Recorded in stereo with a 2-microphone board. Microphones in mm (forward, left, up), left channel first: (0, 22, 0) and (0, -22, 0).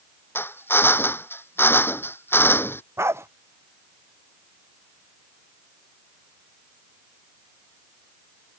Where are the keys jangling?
No keys jangling in this recording.